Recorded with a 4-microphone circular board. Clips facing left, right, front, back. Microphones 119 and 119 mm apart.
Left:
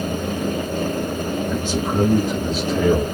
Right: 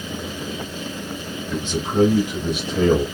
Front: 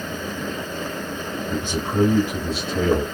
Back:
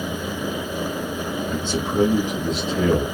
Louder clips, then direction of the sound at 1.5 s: Right 3 dB, even; 45° left.